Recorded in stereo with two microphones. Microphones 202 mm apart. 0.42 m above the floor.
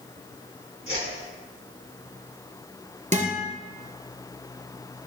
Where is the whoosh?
75° right (ahead or behind), 3 m.